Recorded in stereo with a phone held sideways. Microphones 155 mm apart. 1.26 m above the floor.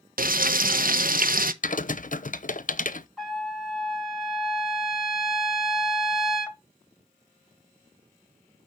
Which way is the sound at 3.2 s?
Centre (ahead or behind).